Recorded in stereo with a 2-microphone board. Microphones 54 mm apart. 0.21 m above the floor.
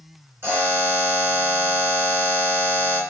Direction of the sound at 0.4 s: 45° right (ahead or behind).